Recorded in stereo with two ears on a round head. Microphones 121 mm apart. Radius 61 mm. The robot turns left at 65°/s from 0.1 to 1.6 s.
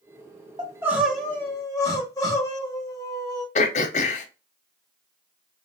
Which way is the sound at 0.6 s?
145° right.